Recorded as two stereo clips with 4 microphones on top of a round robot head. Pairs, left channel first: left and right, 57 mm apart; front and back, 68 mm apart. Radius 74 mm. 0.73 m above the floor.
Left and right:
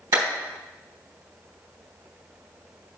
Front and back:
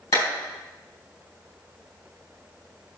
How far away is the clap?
About 4 m.